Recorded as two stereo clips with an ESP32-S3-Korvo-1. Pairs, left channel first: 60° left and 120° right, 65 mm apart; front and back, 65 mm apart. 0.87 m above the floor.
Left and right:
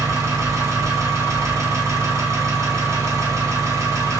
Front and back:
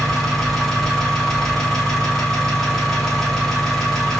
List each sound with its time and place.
0.0 s an engine running: 80° right, 1.2 m